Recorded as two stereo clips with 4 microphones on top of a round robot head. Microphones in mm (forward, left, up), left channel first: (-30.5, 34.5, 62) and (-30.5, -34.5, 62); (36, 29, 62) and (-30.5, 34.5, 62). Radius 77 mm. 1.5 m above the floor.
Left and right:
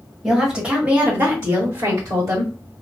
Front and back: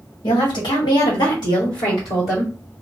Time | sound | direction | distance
0.2 | a woman speaking | 5° right | 1.5 m